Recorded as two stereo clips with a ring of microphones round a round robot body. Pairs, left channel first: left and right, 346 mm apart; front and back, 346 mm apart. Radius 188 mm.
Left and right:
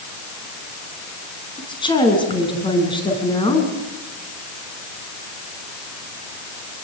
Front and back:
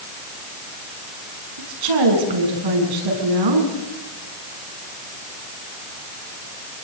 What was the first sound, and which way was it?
A woman speaking, 165° left.